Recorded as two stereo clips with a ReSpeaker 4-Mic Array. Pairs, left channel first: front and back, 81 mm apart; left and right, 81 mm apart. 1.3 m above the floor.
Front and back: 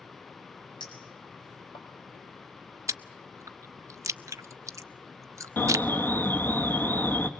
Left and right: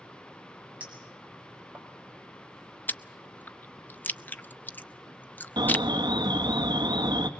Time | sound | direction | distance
0.8 | a clink | 20° right | 4.5 m
2.9 | chewing | 150° left | 0.6 m
5.6 | an alarm | 65° right | 1.3 m